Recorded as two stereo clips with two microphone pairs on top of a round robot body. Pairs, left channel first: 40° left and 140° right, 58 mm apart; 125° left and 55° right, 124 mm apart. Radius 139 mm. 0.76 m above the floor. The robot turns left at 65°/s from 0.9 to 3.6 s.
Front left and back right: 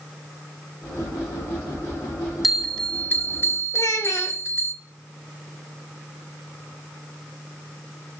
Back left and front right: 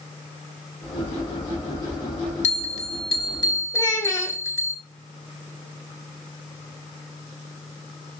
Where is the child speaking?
65° left, 1.9 m.